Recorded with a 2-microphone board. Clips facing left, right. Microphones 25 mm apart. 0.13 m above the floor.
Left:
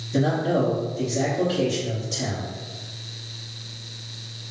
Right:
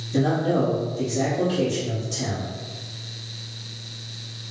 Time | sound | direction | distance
0.1 | a man speaking | 20° left (ahead or behind) | 1.9 m